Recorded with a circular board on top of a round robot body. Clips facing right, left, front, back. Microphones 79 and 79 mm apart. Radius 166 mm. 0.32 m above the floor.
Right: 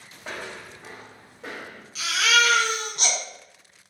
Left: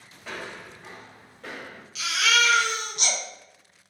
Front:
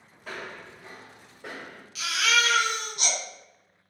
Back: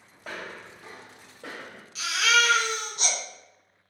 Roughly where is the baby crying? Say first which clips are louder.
Right 2 dB, back 2 dB; behind right.